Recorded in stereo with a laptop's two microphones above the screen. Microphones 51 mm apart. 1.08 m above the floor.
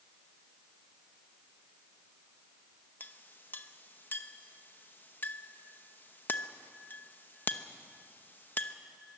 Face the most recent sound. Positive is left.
turn(degrees=35)  # may be behind; listen again after turning